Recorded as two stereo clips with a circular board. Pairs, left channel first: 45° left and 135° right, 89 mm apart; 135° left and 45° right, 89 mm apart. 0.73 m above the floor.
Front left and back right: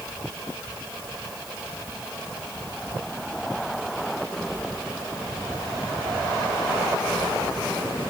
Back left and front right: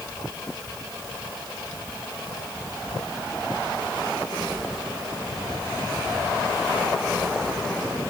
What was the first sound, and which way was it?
Only background noise.